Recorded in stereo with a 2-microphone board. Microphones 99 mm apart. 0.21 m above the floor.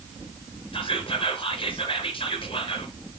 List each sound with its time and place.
0.7 s whispering: 60° left (ahead or behind), 3 m